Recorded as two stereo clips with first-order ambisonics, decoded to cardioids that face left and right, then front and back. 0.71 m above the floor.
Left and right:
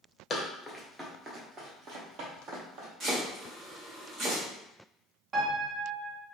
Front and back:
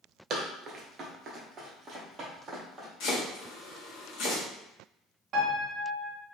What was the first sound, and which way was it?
Running footsteps, 150° left.